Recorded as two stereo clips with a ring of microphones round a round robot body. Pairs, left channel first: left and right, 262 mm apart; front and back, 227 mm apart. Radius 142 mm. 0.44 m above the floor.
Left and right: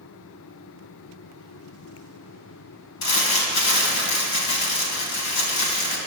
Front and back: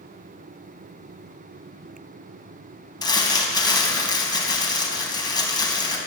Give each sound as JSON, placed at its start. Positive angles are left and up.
{"t": 3.0, "sound": "crumpling", "azimuth_deg": 70, "distance_m": 3.0}